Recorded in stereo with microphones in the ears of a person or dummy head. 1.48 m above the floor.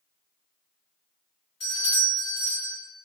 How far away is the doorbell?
About 1.5 m.